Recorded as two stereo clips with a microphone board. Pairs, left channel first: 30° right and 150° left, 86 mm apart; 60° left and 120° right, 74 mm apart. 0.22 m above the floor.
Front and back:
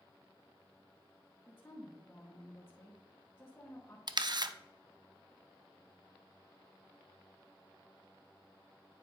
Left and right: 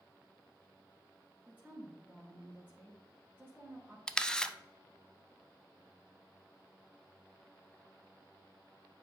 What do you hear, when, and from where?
1.5 s a woman speaking: 70° right, 1.7 m
4.1 s a camera shutter: 140° left, 0.5 m